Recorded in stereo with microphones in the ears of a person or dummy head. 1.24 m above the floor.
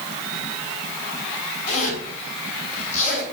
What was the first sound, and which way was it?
A zipper, 40° left (ahead or behind).